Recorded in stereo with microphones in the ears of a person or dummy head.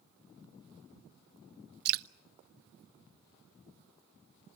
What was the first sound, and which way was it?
Dripping, 50° right (ahead or behind).